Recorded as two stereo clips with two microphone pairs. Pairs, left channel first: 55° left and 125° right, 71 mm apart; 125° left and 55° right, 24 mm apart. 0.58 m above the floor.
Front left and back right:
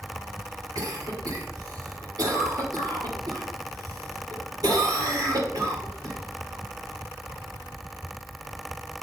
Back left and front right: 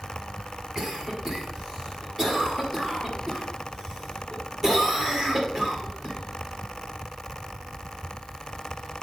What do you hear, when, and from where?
0.8 s a cough: 125° right, 1.7 m